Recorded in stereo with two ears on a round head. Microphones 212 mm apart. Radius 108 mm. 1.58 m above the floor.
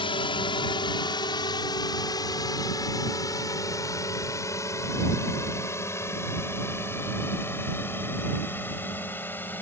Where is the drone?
20° left (ahead or behind); by 9.6 s 10° left (ahead or behind).